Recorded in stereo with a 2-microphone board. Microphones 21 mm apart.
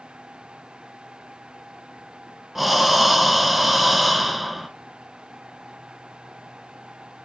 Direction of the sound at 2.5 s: Centre (ahead or behind).